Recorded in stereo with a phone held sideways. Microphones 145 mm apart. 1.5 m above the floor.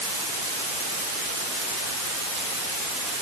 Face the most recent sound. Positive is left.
No sound to turn to.